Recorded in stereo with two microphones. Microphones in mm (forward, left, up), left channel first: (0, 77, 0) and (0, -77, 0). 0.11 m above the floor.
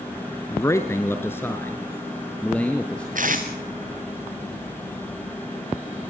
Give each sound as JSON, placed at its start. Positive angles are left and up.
{"t": 0.5, "sound": "a man speaking", "side_deg": 20, "distance_m": 1.1}
{"t": 3.1, "sound": "tape being pulled", "side_deg": -60, "distance_m": 2.0}